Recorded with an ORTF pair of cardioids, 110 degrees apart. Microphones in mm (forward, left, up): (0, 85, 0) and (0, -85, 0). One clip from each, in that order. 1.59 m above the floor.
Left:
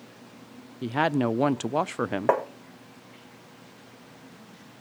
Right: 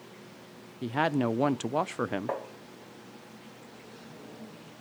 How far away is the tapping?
About 1.0 m.